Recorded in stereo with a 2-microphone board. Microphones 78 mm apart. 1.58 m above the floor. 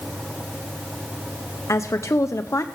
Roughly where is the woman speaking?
Left.